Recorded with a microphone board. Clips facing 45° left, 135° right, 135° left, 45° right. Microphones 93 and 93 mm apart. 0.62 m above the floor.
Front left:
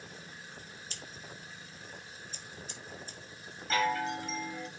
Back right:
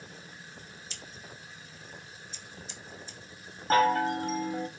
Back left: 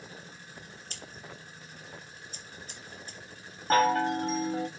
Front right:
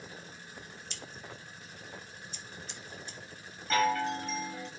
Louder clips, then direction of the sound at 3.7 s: Back right 7 dB, back left 4 dB; straight behind.